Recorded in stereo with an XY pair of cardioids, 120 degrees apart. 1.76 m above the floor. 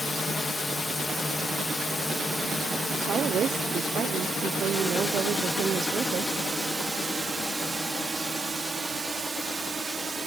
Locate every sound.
0.0 s a drone: 15° left; by 10.3 s 40° right
2.9 s a woman speaking: 55° right